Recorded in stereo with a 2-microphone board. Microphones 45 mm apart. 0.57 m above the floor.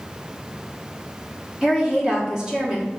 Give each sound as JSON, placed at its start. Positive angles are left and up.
{"t": 1.6, "sound": "a woman speaking", "side_deg": -15, "distance_m": 0.9}